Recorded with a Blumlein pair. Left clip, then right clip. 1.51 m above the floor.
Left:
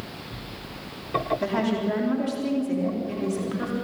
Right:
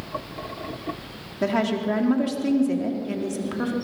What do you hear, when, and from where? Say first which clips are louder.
1.4 s a woman speaking: right 2 dB; 15° right, 3.5 m